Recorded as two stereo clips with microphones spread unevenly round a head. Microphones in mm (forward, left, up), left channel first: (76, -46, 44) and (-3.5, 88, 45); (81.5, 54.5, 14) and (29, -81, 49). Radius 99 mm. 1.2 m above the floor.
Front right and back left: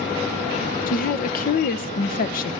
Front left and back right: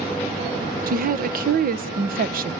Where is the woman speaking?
85° right, 1.1 m.